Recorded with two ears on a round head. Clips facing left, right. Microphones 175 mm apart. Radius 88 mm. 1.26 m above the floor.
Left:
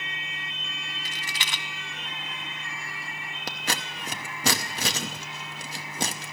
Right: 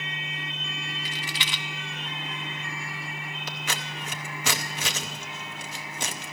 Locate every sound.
1.1 s a rattle: 40° left (ahead or behind), 0.7 m
3.5 s scissors: 30° left (ahead or behind), 0.8 m